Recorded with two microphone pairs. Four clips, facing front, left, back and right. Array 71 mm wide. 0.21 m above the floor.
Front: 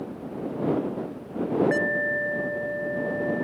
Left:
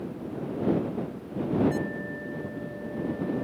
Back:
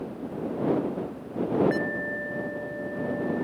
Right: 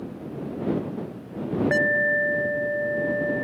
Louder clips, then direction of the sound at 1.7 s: Right 10 dB, front 4 dB; 90° right.